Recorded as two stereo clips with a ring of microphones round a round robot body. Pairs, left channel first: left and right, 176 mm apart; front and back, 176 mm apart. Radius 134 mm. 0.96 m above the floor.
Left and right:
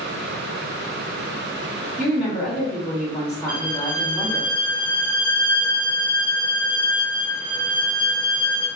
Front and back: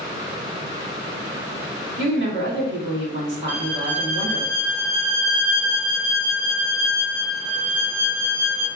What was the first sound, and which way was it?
A woman speaking, 175° right.